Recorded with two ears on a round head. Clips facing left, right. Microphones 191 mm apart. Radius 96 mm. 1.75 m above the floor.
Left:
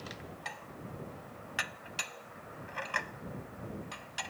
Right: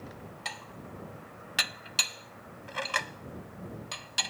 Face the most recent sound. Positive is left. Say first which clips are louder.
# right 1 dB
turn(degrees=-55)  # may be behind; listen again after turning